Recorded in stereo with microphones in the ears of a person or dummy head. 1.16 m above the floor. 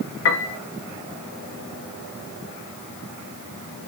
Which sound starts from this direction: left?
A piano, at 0.2 s.